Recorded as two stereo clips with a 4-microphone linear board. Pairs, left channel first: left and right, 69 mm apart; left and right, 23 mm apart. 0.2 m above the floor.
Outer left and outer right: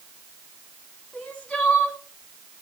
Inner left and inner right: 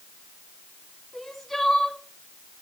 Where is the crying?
15° left (ahead or behind), 1.7 m.